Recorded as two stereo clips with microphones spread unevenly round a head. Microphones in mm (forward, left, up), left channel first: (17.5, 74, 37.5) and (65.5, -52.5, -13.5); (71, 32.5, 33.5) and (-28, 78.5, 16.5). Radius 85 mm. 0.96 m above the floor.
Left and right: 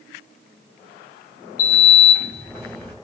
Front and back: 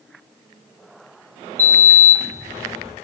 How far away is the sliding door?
About 1.6 m.